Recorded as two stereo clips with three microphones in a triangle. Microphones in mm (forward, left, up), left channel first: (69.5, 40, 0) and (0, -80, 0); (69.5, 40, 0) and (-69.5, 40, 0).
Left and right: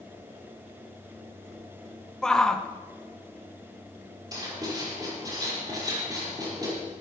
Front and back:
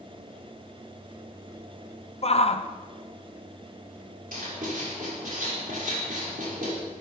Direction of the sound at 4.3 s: Straight behind.